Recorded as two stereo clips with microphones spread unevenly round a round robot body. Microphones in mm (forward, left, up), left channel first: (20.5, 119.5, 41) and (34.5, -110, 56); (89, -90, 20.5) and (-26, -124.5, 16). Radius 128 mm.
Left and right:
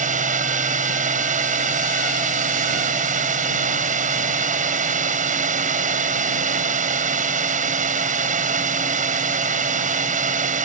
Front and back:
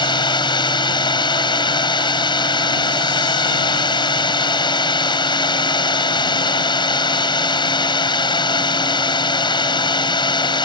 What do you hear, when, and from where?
0.0 s a drone: 30° right